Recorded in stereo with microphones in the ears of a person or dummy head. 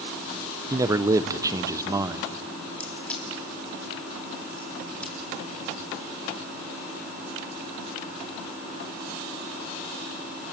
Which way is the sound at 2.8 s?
10° left (ahead or behind).